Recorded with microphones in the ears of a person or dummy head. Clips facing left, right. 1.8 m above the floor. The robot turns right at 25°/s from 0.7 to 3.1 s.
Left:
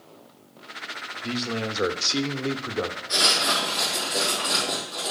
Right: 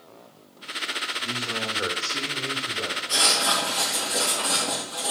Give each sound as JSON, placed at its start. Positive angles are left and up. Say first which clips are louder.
{"t": 1.2, "sound": "a man speaking", "louder": "left 6 dB", "azimuth_deg": 25, "distance_m": 1.2}
{"t": 3.1, "sound": "writing", "louder": "even", "side_deg": -35, "distance_m": 3.5}